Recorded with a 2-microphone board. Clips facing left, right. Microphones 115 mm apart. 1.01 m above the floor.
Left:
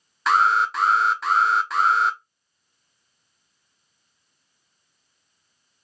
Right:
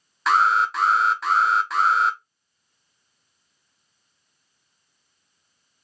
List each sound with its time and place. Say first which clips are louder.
0.3 s an alarm: even; centre (ahead or behind), 0.5 m